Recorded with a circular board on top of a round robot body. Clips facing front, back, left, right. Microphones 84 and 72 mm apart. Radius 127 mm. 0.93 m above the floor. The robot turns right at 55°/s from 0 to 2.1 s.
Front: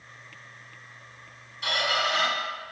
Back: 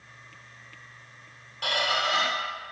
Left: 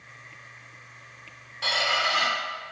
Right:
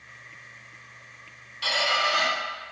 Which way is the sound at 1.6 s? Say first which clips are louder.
Even, right 1 dB; 155° left.